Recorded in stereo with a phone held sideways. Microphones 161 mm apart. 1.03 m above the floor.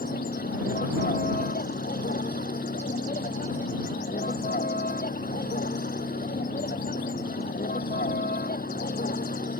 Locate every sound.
0.0 s a vehicle: 85° left